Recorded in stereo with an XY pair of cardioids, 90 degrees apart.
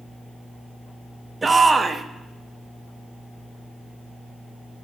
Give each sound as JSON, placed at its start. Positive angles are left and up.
{"t": 1.4, "sound": "a shout", "azimuth_deg": -30, "distance_m": 0.9}